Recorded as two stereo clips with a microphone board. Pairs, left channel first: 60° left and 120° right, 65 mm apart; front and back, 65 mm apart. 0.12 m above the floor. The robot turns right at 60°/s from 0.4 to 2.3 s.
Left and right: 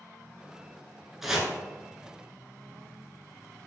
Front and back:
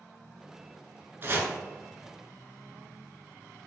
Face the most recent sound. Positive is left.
turn(degrees=-140)